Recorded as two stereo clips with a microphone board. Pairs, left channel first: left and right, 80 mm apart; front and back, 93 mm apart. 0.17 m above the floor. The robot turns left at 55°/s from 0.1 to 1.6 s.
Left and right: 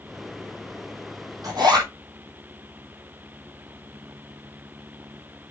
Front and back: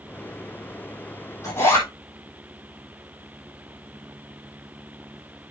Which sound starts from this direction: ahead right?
A zipper, at 1.4 s.